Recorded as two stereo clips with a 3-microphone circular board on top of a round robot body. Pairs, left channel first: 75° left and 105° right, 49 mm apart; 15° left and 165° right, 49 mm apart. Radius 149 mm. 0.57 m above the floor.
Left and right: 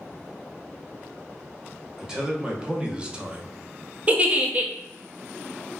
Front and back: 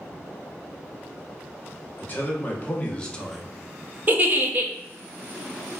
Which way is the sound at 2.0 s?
30° right.